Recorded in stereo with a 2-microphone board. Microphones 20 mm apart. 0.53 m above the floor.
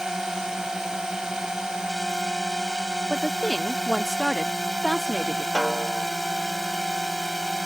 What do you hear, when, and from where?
0.0 s a drone: 30° right (ahead or behind)
3.1 s a woman speaking: 20° left (ahead or behind)
5.5 s a snare drum: 60° left (ahead or behind)